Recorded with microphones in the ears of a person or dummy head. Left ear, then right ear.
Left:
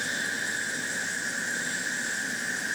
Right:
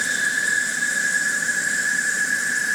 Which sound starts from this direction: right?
An insect, at 0.0 s.